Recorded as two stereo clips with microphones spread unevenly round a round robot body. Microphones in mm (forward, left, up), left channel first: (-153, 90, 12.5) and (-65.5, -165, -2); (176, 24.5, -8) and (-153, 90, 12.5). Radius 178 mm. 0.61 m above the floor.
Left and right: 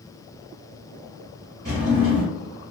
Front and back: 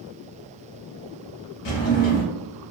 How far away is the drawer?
About 0.9 m.